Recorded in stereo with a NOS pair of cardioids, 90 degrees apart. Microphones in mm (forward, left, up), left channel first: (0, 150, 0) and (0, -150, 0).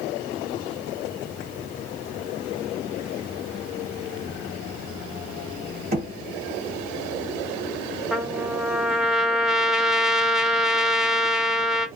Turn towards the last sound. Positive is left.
turn(degrees=0)